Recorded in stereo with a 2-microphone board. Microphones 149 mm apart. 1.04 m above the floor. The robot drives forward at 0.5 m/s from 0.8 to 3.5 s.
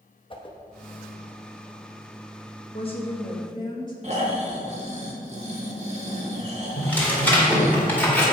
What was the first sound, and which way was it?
A whoosh, 35° left (ahead or behind).